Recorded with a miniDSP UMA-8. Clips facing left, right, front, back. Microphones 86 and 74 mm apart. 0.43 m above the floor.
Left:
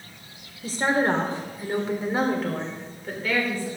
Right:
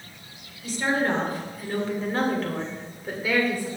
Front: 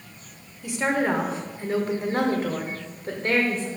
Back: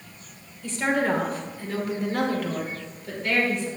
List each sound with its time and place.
0.6 s a woman speaking: 75° left, 1.6 m; by 3.7 s 25° right, 1.7 m